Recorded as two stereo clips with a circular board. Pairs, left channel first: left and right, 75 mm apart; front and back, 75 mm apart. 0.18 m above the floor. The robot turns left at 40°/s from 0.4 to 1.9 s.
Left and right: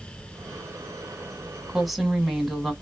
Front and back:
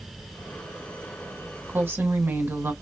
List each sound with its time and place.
1.7 s a woman speaking: 170° right, 1.2 m; by 2.7 s straight behind, 1.2 m